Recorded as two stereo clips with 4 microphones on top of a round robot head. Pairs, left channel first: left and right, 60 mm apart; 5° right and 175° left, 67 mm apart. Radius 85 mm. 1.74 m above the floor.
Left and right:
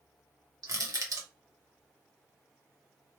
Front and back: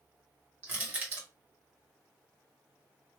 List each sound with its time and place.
0.6 s crushing: 120° right, 0.9 m